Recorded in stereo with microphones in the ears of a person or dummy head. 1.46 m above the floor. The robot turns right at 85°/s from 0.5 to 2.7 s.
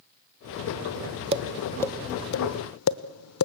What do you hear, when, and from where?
1.3 s tapping: 35° right (ahead or behind), 0.9 m; by 3.5 s 80° left, 0.9 m